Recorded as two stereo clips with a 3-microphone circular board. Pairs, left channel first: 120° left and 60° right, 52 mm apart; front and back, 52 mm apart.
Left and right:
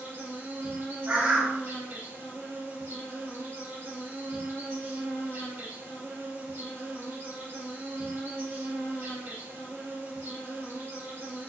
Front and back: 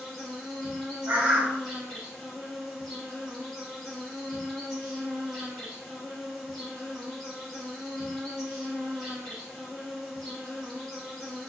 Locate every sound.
0.0 s an insect: 85° right, 2 m
1.1 s a bird: 115° right, 1.3 m